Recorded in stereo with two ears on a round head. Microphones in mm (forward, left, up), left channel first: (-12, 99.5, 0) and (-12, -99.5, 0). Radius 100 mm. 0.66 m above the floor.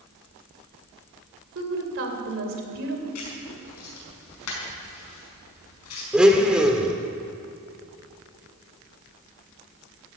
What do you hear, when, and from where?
1.6 s a woman speaking: 60° right (ahead or behind), 3 m
3.1 s writing: 85° left, 5.5 m
6.1 s a blender: 5° right (ahead or behind), 1.7 m